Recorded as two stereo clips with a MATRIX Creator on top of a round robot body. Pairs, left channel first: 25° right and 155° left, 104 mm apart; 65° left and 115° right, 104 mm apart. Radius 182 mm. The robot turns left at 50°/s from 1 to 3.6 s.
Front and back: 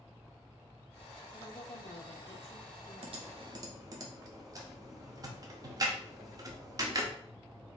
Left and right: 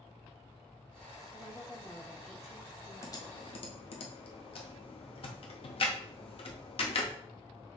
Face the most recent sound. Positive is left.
turn(degrees=100)